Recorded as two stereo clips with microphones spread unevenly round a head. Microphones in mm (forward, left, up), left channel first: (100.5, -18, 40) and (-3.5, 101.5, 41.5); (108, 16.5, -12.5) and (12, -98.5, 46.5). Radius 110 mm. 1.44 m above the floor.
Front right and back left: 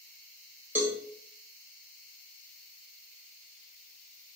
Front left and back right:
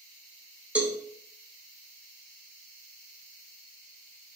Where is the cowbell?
155° right, 0.8 m.